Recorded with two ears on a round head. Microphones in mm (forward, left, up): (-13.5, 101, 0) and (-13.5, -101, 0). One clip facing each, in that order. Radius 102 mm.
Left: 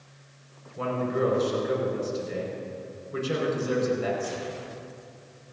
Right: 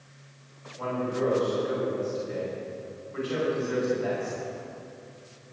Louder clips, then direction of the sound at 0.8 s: Left 2 dB; 70° left (ahead or behind).